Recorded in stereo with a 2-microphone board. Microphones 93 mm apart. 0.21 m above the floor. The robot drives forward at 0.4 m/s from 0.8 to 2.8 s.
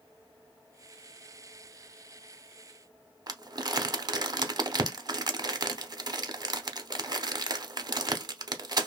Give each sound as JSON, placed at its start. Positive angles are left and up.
{"t": 3.3, "sound": "crumpling", "side_deg": -45, "distance_m": 0.5}